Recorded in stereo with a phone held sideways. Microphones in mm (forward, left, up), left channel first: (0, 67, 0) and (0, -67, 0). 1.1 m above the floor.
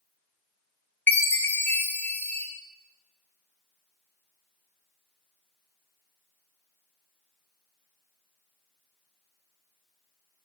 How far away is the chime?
About 1.2 m.